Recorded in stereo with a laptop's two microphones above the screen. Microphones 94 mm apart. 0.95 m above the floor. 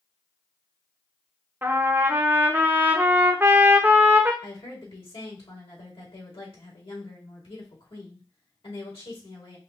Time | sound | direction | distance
1.6 | a trumpet | 20° right (ahead or behind) | 0.8 m
4.4 | a woman speaking | 75° left (ahead or behind) | 2.5 m